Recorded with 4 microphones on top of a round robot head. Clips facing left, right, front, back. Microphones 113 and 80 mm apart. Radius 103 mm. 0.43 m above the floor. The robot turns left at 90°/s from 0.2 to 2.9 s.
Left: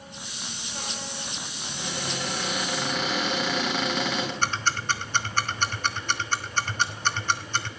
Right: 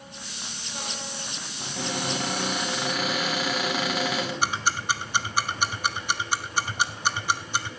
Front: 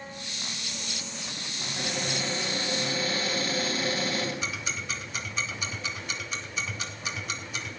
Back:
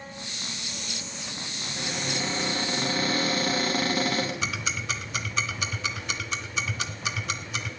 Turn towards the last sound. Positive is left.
turn(degrees=-170)